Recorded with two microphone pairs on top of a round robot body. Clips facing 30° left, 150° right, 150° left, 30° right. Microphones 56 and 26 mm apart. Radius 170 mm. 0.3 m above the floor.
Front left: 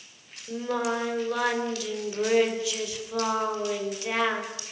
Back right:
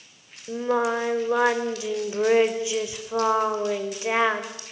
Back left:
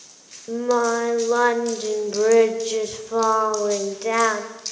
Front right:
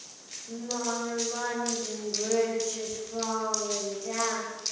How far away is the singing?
About 2.5 m.